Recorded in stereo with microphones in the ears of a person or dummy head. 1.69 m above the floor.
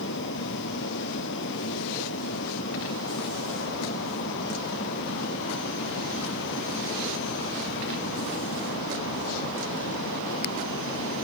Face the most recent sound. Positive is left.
turn(degrees=70)  # may be behind; listen again after turning